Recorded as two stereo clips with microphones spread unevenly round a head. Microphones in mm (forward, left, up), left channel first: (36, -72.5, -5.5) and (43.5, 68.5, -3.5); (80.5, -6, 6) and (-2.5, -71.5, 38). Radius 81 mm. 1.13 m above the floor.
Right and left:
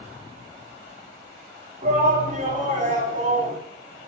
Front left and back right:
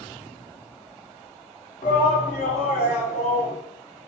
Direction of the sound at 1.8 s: 50° left.